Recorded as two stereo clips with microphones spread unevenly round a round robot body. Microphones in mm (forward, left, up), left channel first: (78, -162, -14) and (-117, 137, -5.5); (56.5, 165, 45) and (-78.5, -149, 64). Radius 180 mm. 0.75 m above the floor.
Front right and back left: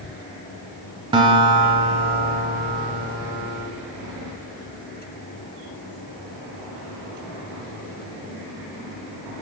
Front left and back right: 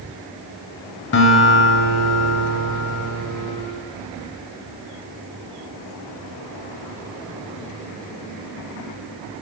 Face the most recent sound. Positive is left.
turn(degrees=70)